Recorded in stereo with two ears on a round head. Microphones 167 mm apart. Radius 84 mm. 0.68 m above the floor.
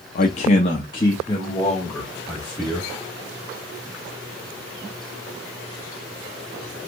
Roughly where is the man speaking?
Left.